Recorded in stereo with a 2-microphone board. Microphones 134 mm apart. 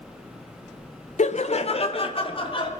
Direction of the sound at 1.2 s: 60° left (ahead or behind).